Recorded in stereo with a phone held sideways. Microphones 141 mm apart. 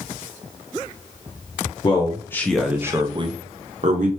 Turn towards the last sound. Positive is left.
turn(degrees=-65)  # may be behind; listen again after turning